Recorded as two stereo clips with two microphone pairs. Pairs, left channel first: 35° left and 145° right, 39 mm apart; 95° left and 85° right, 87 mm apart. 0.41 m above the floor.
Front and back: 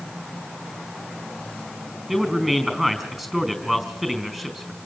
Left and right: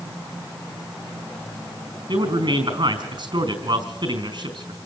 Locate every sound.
2.1 s a man speaking: 65° right, 4 m